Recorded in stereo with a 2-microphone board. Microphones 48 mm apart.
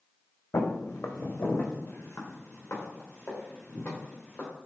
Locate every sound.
0.5 s footsteps: 80° left, 0.7 m; by 4.5 s 35° left (ahead or behind), 2.5 m